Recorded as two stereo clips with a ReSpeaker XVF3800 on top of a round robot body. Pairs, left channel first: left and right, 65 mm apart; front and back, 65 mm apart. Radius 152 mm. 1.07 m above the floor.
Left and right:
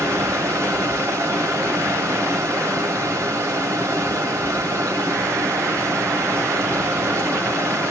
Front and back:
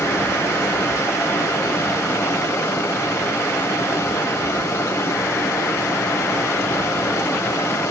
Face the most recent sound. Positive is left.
turn(degrees=-40)